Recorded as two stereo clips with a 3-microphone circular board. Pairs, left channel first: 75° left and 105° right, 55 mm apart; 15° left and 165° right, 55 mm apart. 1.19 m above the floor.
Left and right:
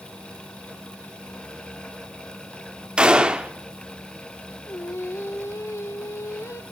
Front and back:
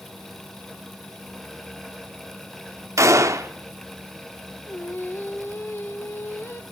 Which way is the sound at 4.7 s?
55° left.